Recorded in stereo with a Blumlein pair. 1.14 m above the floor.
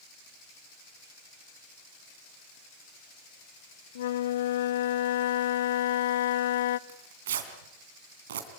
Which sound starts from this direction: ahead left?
A flute, at 4.0 s.